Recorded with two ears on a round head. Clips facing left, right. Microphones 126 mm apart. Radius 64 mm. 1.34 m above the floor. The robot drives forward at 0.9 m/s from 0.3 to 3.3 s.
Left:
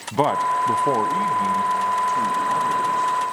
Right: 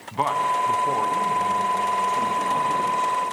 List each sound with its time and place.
0.1 s a man speaking: 45° left (ahead or behind), 0.5 m; by 3.2 s 10° left (ahead or behind), 2.5 m